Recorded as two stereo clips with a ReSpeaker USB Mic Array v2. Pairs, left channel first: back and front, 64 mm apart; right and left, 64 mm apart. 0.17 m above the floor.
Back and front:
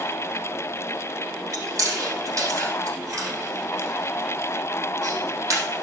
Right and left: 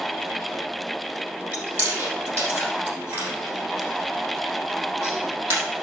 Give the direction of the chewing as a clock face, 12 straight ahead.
11 o'clock.